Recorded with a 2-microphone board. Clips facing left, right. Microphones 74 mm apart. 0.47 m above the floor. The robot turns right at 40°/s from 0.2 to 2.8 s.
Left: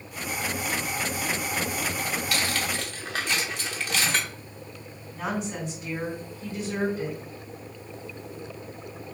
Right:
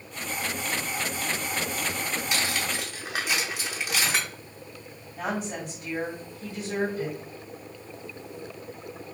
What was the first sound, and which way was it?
Cutlery clinking, 20° right (ahead or behind).